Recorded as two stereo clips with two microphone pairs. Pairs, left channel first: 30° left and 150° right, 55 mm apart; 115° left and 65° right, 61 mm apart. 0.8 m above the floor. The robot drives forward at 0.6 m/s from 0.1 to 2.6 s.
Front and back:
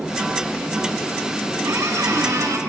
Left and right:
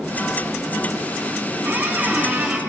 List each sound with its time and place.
1.6 s a squeak: 125° right, 3 m; by 2.6 s 135° right, 3 m